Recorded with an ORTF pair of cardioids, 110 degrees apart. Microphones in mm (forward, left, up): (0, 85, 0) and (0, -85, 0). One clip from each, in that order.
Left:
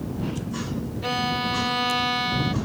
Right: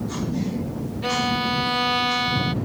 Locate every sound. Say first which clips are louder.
1.0 s a violin: right 2 dB; 10° right